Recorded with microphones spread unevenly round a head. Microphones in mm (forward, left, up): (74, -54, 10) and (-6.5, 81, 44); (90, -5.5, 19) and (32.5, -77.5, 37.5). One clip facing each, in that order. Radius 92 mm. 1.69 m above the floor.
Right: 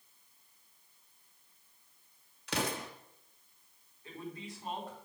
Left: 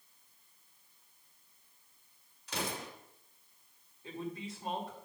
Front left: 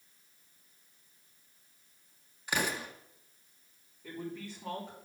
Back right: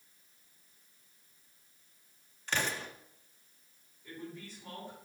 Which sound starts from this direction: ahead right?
An explosion, at 2.5 s.